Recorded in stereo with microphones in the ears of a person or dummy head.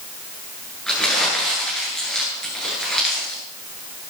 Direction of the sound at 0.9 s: 5° left (ahead or behind).